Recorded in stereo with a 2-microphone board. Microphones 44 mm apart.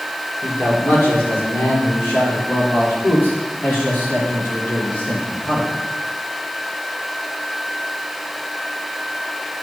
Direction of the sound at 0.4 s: 50° left (ahead or behind).